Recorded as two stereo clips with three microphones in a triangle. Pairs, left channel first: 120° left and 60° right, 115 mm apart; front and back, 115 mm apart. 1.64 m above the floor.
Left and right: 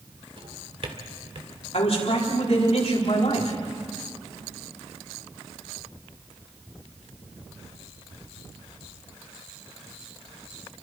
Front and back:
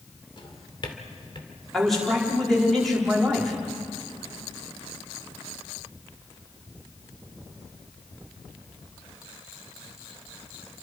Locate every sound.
0.4 s a drawer: 35° right, 2 m
1.7 s a man speaking: 85° left, 5 m